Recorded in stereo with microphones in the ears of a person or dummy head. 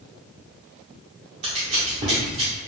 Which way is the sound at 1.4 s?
30° right (ahead or behind).